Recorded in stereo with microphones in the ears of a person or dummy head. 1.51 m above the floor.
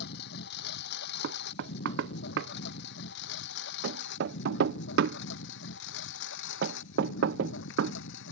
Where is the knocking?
65° right (ahead or behind).